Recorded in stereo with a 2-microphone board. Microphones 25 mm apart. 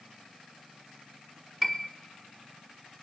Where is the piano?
15° right (ahead or behind), 1.0 m.